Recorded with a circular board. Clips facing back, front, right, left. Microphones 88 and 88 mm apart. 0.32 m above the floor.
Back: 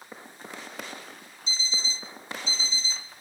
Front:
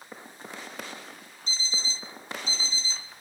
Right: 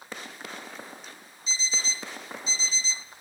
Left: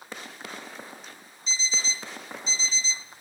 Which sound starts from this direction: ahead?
An alarm clock, at 1.5 s.